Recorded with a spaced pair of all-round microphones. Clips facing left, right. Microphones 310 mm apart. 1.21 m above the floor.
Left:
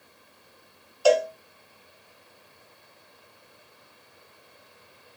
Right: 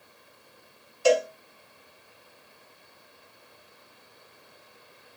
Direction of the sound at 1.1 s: 30° right (ahead or behind).